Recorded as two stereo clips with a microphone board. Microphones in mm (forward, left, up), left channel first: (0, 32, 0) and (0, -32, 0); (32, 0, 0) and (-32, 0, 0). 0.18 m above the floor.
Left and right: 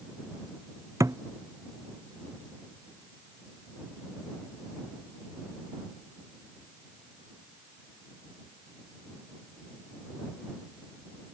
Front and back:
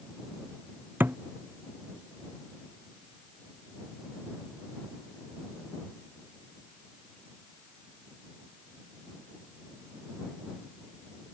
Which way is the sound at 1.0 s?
125° right.